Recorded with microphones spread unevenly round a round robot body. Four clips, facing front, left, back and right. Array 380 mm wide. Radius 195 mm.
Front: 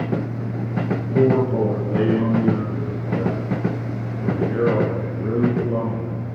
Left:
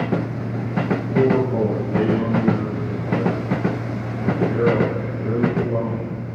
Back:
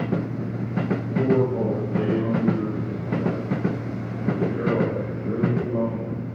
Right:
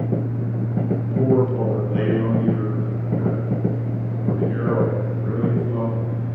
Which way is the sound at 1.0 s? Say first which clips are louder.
Even, front 4 dB; 30° left.